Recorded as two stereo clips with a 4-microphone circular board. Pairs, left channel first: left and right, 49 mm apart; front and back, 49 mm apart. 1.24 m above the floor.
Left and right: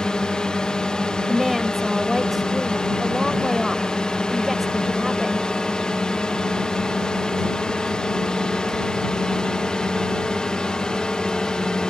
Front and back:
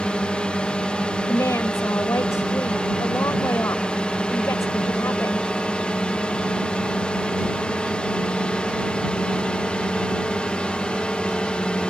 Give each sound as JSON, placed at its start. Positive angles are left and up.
{"t": 0.0, "sound": "a drone", "azimuth_deg": 40}
{"t": 1.3, "sound": "a woman speaking", "azimuth_deg": 0}